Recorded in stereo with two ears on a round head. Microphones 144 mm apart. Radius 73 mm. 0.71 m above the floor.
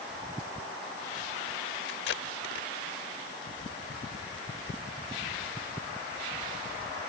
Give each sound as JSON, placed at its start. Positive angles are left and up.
{"t": 1.9, "sound": "tape being pulled", "side_deg": 70}